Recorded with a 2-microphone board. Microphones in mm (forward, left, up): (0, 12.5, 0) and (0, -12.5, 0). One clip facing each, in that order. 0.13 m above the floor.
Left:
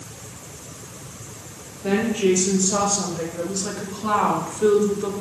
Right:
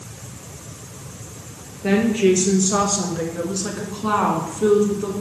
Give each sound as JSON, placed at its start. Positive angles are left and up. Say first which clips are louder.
{"t": 1.8, "sound": "a woman speaking", "louder": "right 3 dB", "side_deg": -45, "distance_m": 2.5}